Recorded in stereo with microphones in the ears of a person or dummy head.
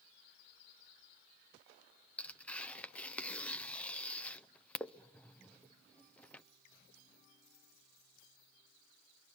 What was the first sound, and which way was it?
Tearing paper, 10° left (ahead or behind).